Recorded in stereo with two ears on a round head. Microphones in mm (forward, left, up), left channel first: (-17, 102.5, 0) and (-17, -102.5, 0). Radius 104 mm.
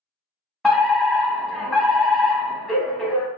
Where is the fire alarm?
Centre (ahead or behind), 1.1 m.